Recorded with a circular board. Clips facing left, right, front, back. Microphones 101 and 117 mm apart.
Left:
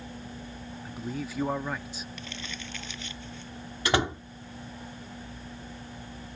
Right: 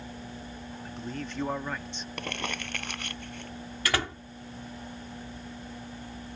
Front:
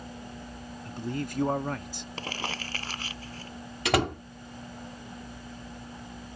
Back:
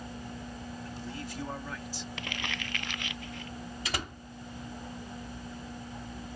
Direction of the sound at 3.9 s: 20° left.